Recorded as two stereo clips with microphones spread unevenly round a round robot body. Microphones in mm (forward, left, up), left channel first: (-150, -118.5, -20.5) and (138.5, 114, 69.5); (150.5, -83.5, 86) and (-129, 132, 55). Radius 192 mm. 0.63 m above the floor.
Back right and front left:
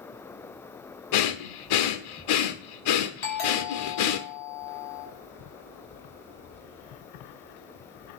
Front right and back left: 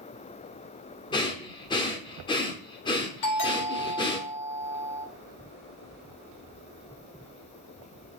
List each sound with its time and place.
1.1 s breathing: 115° right, 0.9 m
3.2 s a doorbell: 85° right, 5.5 m